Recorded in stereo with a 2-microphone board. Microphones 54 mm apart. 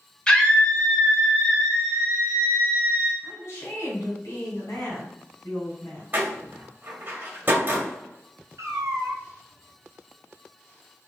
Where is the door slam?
35° right (ahead or behind), 1.5 m.